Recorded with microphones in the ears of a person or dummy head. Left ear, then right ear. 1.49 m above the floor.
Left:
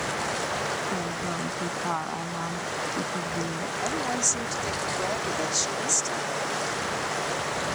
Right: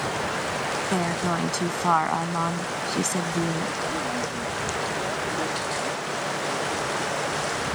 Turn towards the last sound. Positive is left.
turn(degrees=70)  # may be behind; listen again after turning